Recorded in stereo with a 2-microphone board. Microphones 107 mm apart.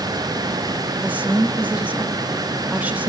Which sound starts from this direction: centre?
A woman speaking, at 1.0 s.